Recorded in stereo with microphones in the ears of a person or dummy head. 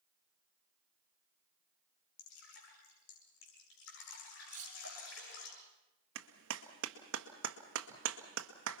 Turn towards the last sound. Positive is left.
turn(degrees=-70)  # may be behind; listen again after turning